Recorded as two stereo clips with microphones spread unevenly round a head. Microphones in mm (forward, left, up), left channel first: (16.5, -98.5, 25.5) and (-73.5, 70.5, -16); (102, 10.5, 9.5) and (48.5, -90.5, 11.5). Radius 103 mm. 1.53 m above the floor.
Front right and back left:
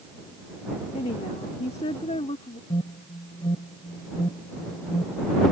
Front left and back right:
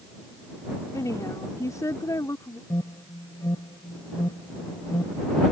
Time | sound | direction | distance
0.9 | a woman speaking | straight ahead | ?
2.7 | an alarm | 5° left | ?